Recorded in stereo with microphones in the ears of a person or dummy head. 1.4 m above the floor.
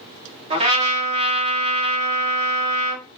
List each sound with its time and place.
0.5 s a trumpet: 35° right (ahead or behind), 1.5 m